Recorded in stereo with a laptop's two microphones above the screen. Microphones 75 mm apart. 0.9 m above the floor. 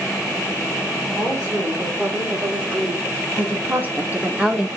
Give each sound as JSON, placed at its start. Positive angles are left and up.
{"t": 1.2, "sound": "a woman speaking", "side_deg": -35, "distance_m": 2.5}